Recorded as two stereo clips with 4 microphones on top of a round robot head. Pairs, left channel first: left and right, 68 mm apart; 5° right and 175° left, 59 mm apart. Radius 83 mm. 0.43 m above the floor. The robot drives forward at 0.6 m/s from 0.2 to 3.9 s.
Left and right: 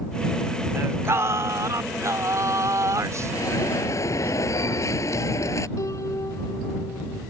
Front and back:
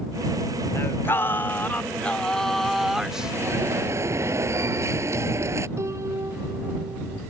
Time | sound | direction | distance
0.8 | singing | 45° right | ?
3.3 | an alarm | 130° left | ?
5.8 | a piano | 135° left | ?